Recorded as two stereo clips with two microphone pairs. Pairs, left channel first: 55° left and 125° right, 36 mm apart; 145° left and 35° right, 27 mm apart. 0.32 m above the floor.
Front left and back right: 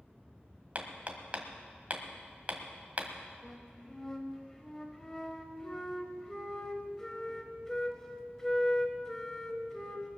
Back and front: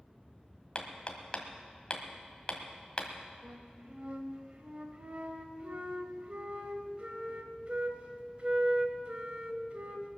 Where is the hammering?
170° right, 1.6 m.